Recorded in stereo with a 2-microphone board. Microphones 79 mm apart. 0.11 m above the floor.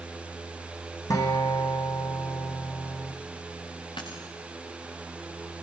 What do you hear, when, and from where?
1.1 s a guitar: 40° left (ahead or behind), 6 m
4.0 s a dropped coin: 80° left, 6.5 m